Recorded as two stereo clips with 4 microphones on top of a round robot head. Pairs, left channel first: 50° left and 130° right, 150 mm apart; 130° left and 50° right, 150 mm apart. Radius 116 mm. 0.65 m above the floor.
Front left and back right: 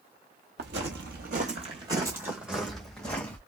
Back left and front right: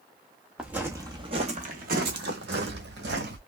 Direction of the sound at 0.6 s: 130° right.